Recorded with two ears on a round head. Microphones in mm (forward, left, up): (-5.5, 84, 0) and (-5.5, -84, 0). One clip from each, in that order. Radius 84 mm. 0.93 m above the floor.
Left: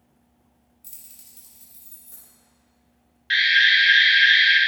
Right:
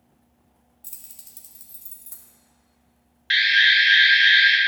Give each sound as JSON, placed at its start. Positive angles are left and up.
{"t": 0.8, "sound": "keys jangling", "side_deg": -15, "distance_m": 0.9}
{"t": 3.3, "sound": "an alarm", "side_deg": -20, "distance_m": 0.9}